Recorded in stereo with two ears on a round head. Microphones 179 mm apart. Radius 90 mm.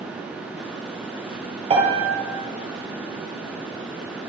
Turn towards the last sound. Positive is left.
turn(degrees=-30)  # may be behind; listen again after turning